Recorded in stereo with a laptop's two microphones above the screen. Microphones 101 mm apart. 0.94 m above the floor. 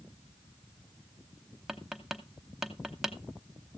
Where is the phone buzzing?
No phone buzzing in this recording.